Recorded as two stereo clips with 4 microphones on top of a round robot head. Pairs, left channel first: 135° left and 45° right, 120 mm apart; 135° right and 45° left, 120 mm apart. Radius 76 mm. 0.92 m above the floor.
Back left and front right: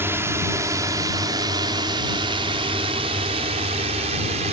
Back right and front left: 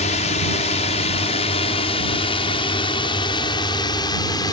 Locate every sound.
0.0 s a drone: 115° right; by 4.5 s 75° right